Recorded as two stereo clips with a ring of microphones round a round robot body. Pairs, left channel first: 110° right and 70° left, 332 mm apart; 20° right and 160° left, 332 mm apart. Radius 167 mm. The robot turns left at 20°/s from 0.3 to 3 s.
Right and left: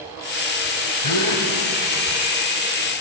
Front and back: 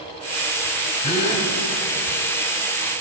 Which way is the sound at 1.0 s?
90° right.